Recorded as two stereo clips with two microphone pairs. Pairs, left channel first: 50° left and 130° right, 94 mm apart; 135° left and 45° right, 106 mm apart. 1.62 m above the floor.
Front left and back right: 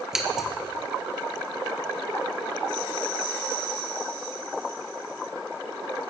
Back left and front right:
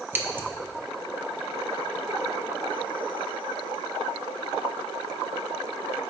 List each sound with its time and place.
0.1 s scissors: 60° right, 0.7 m